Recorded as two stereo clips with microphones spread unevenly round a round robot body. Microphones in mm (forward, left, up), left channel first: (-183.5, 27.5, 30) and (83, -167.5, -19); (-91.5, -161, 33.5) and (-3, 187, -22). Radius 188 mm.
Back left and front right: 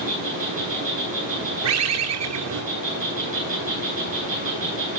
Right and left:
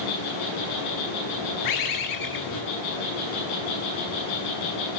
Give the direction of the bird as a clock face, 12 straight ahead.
2 o'clock.